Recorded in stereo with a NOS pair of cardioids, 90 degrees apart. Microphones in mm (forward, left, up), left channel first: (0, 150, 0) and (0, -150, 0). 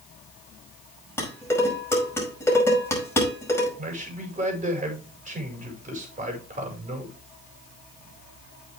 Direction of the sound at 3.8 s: 25° right.